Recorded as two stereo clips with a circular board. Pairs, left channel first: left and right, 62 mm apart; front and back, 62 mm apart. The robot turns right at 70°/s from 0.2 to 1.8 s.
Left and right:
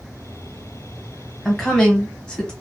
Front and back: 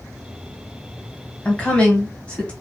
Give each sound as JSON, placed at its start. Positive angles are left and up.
{"t": 1.4, "sound": "a woman speaking", "azimuth_deg": 10, "distance_m": 1.2}